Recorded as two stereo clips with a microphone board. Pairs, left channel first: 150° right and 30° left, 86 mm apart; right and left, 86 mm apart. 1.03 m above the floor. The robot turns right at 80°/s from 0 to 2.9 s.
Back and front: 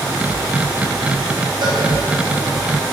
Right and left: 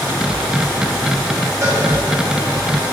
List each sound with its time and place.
1.6 s a cowbell: 40° left, 2.5 m; by 1.8 s 55° left, 2.5 m